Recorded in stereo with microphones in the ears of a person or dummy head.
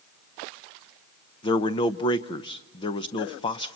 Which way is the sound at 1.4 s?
30° left (ahead or behind).